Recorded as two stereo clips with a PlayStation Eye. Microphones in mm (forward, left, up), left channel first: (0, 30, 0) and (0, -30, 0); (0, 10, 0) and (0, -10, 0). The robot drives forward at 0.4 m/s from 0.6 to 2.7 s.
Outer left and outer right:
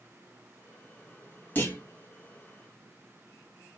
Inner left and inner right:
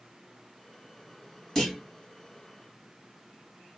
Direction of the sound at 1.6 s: 30° left (ahead or behind).